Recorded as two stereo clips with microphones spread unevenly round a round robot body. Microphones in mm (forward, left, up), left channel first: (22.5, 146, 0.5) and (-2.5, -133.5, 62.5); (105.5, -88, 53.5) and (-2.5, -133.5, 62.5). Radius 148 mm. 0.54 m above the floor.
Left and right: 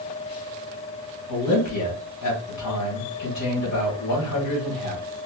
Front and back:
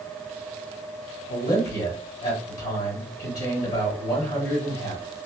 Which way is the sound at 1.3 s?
55° left.